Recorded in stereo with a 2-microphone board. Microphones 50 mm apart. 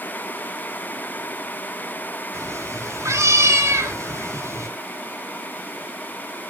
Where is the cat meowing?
70° right (ahead or behind), 4 m.